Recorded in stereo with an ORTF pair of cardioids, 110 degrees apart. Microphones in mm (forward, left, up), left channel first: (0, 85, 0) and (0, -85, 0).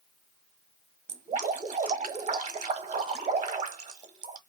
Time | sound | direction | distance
1.1 | dripping | 45° right | 1.1 m